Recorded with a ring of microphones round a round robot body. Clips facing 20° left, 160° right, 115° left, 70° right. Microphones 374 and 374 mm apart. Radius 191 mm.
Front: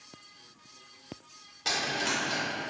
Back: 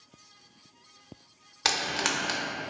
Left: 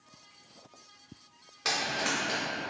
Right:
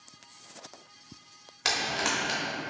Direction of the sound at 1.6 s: 140° right.